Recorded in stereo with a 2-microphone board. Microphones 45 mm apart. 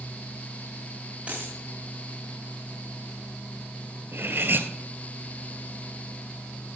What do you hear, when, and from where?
1.3 s a dropped coin: 30° right (ahead or behind), 4.5 m
4.1 s cutlery clinking: 55° right (ahead or behind), 1.2 m